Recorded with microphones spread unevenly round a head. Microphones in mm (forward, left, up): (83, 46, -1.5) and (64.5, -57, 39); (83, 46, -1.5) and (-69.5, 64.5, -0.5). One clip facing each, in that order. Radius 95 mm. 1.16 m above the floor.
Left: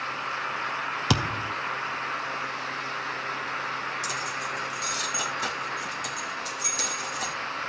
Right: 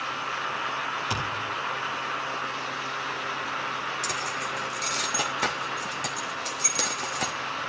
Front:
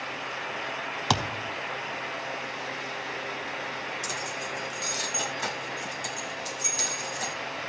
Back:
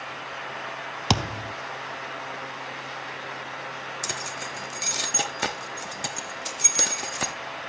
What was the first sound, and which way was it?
A thud, 110° left.